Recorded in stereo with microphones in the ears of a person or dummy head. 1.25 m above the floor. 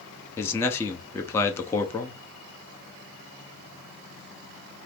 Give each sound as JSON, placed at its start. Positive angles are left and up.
{"t": 0.4, "sound": "a man speaking", "side_deg": 15, "distance_m": 0.6}